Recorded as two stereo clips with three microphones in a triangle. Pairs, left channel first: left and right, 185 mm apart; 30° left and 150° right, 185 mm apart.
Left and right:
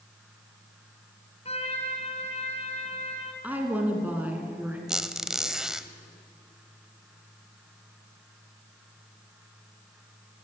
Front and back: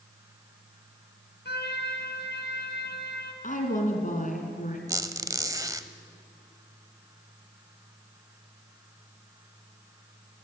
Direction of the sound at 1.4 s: 40° left.